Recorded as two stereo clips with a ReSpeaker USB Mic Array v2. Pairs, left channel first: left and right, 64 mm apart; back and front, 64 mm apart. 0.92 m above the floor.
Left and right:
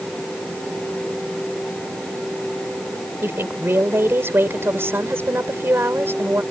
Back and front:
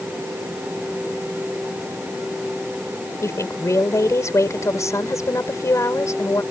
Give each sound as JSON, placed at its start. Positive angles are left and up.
{"t": 3.2, "sound": "a woman speaking", "azimuth_deg": -145}